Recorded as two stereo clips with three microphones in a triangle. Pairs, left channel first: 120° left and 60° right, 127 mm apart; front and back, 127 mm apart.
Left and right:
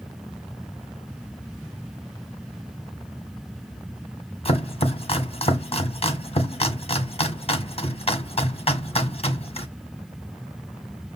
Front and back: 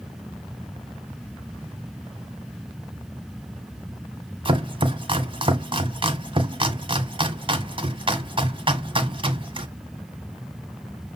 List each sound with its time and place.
4.5 s chopping: 140° left, 1.4 m